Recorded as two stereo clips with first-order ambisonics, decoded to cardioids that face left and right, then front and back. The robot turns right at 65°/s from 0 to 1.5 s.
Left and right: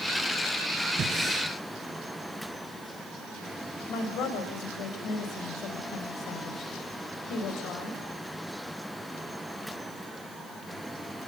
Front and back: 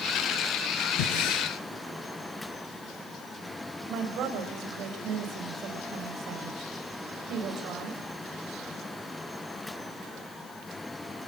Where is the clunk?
No clunk in this recording.